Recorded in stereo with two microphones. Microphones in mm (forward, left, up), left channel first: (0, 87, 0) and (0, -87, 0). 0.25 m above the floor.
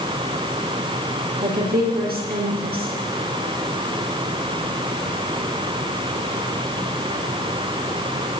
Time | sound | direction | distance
1.4 | a woman speaking | 60° right (ahead or behind) | 5 m